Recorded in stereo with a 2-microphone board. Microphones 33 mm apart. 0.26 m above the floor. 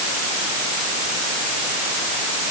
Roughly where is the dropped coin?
I don't hear a dropped coin.